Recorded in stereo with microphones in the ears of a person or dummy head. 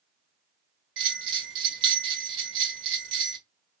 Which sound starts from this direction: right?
A bell, at 1.0 s.